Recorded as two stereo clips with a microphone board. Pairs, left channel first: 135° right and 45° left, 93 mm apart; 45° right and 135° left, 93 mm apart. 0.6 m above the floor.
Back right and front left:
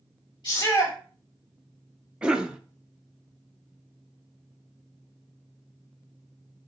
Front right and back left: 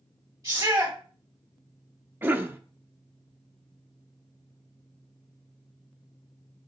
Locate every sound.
0.4 s a shout: 170° right, 3.5 m
2.2 s a cough: 110° left, 0.6 m